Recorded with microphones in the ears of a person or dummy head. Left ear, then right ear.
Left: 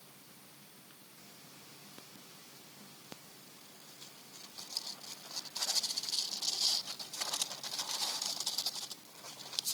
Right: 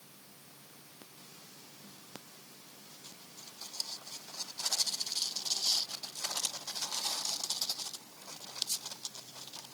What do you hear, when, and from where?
Only background noise.